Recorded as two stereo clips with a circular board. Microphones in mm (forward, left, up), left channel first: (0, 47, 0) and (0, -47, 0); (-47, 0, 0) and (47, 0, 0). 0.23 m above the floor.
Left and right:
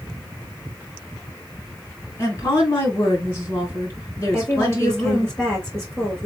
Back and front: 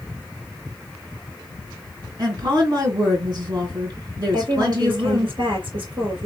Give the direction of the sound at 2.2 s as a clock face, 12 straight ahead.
11 o'clock.